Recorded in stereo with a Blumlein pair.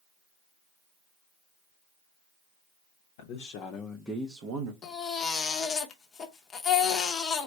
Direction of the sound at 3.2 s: 55° left.